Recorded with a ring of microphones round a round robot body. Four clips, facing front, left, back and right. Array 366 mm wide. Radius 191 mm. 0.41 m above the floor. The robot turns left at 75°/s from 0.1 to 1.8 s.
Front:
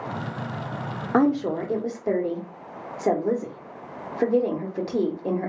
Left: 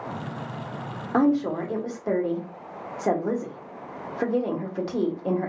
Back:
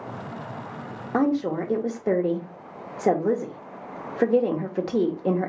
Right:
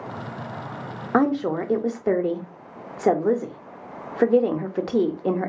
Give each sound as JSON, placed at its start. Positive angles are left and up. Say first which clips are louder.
{"t": 1.1, "sound": "a woman speaking", "louder": "right 1 dB, front 2 dB", "azimuth_deg": -60, "distance_m": 1.0}